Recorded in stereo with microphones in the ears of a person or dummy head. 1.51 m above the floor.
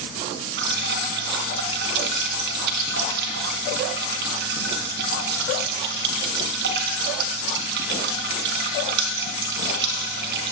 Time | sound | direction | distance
0.6 | dripping | 55° right (ahead or behind) | 4 m